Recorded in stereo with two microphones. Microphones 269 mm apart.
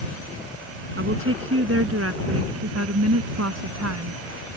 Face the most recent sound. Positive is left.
turn(degrees=-70)  # may be behind; listen again after turning